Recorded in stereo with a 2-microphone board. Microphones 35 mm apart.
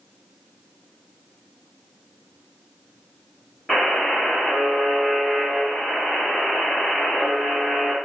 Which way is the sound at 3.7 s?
Centre (ahead or behind).